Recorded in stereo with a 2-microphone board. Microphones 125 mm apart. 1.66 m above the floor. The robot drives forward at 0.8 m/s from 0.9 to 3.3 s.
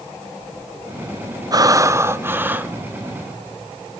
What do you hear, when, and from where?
1.5 s breathing: 30° right (ahead or behind), 0.6 m; by 2.7 s 15° right (ahead or behind), 1.3 m